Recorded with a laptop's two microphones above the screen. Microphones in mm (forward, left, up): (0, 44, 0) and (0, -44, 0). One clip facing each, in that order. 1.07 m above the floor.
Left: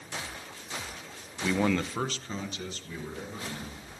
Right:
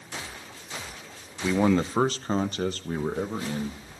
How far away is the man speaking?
About 0.7 m.